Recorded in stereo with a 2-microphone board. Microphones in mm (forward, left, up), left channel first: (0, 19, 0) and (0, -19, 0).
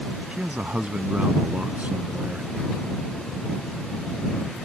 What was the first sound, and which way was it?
A man speaking, 35° right (ahead or behind).